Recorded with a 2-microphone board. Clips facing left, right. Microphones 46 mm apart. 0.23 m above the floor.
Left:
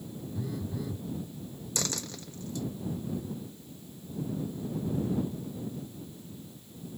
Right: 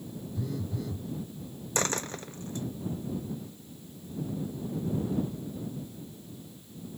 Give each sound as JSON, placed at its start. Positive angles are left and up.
{"t": 0.3, "sound": "a phone buzzing", "side_deg": 10}
{"t": 1.8, "sound": "a dropped coin", "side_deg": -35}